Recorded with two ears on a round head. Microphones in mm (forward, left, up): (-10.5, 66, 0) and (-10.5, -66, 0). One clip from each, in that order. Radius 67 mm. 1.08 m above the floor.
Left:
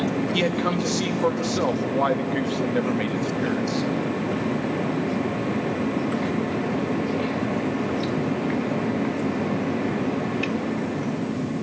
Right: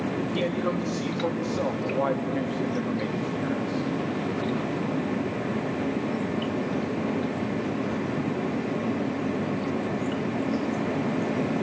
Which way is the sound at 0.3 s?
75° left (ahead or behind).